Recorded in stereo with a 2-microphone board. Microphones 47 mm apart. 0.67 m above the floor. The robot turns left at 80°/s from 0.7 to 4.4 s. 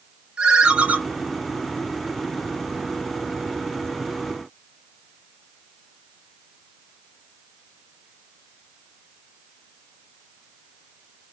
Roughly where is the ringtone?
Right.